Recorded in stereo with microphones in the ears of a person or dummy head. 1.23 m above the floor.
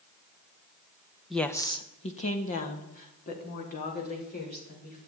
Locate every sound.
1.3 s a woman speaking: centre (ahead or behind), 1.0 m; by 5.1 s 50° left (ahead or behind), 6.5 m